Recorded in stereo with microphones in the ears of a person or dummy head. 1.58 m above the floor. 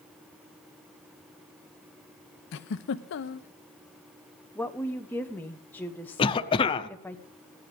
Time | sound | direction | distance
2.5 | a giggle | 60° left (ahead or behind) | 0.6 m
4.5 | a woman speaking | 10° left (ahead or behind) | 0.9 m
6.2 | a cough | 25° left (ahead or behind) | 0.8 m